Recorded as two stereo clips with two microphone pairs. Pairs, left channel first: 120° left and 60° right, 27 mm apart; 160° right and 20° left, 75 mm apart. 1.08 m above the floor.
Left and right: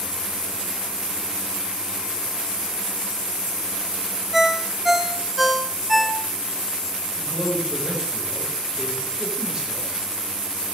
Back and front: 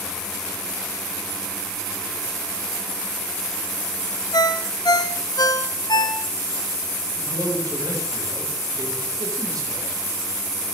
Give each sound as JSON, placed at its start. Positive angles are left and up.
{"t": 4.3, "sound": "a ringtone", "azimuth_deg": -145, "distance_m": 1.1}
{"t": 7.2, "sound": "a man speaking", "azimuth_deg": -5, "distance_m": 5.5}